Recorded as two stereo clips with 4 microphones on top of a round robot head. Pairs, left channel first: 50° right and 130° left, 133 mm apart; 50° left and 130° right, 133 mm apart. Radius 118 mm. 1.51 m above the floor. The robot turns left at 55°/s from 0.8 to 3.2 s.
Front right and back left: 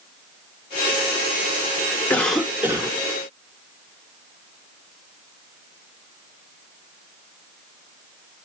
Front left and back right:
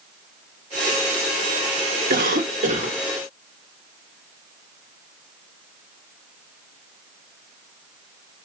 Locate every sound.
2.1 s a cough: 130° right, 1.2 m; by 3.0 s 175° right, 1.2 m